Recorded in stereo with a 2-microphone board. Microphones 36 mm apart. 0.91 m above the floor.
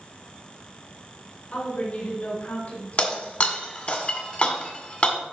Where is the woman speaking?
40° left (ahead or behind), 4 m.